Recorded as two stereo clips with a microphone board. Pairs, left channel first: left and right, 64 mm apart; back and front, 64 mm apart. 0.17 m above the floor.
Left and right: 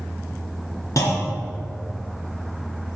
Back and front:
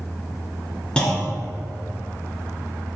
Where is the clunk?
105° left, 1.6 m.